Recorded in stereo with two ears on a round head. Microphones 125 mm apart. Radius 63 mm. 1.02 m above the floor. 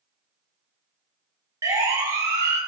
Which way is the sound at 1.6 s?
25° right (ahead or behind).